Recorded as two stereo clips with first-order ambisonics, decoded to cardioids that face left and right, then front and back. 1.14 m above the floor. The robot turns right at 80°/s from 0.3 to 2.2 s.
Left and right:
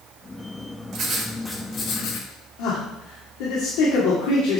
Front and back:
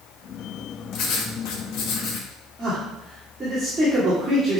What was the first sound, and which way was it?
Writing, 40° right.